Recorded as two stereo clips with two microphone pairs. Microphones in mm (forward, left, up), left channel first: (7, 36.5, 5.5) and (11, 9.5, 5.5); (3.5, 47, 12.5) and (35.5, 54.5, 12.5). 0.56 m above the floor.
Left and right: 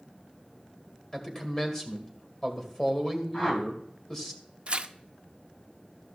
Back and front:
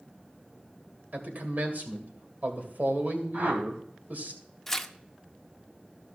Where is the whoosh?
50° left, 1.9 m.